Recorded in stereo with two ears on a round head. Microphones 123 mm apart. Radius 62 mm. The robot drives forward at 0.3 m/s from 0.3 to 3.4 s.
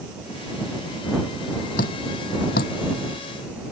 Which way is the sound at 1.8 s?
70° left (ahead or behind).